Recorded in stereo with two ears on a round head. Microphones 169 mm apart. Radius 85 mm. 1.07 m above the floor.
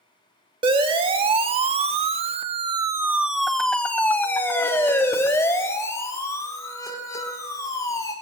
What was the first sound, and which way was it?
A siren, 30° right (ahead or behind).